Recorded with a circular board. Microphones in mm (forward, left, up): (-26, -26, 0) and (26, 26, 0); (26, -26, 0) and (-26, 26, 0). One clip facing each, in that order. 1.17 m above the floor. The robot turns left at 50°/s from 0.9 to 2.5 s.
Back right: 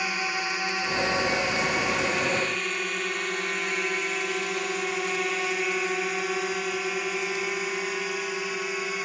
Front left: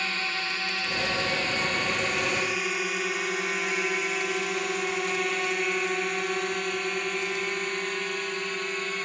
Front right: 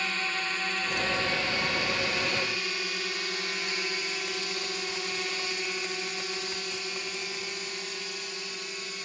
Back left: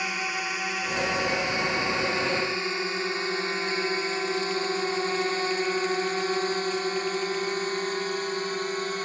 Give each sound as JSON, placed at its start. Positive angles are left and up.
{"t": 0.0, "sound": "a drone", "azimuth_deg": 180}